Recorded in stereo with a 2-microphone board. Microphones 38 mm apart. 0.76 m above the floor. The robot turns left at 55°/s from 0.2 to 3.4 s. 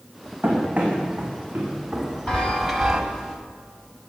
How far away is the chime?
About 1.5 m.